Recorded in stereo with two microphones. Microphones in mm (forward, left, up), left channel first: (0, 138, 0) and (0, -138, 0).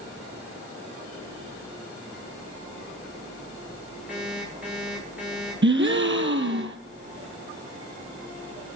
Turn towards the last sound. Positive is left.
turn(degrees=-45)  # may be behind; listen again after turning